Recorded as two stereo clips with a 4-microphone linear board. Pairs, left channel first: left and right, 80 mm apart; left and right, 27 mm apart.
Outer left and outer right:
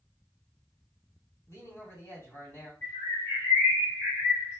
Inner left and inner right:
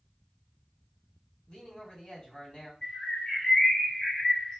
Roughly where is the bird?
Left.